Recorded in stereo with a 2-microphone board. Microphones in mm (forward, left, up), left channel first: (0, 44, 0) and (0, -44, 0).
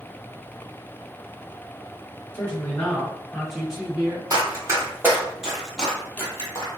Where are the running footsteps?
40° right (ahead or behind), 1.3 m; by 6.7 s 35° left (ahead or behind), 1.2 m.